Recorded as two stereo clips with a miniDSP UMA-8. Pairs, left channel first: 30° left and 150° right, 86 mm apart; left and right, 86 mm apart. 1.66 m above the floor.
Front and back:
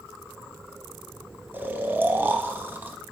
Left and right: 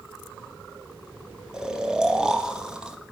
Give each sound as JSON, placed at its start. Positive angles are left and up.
{"t": 1.5, "sound": "snoring", "azimuth_deg": -160, "distance_m": 1.0}